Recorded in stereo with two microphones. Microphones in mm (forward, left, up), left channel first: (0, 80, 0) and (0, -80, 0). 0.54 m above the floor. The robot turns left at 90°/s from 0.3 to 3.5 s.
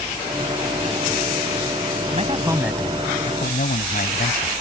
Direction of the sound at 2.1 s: 125° right.